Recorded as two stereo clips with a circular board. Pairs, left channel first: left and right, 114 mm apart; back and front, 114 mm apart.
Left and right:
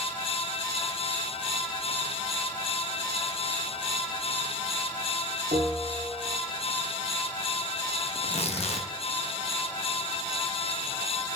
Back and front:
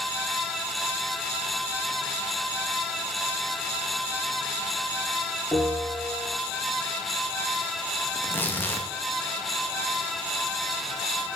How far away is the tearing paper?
About 1.0 m.